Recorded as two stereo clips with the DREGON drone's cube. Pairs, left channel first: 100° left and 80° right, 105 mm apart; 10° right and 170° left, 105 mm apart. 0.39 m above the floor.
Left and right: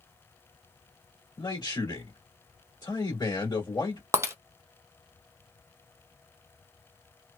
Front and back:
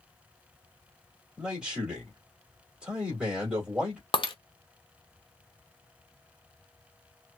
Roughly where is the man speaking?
Left.